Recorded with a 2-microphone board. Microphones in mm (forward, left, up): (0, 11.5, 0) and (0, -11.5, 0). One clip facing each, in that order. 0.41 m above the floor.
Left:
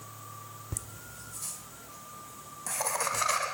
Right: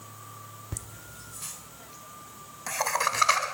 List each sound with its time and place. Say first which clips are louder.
0.7 s laughter: right 1 dB; 20° right (ahead or behind), 0.9 m; by 3.4 s 35° right (ahead or behind), 3 m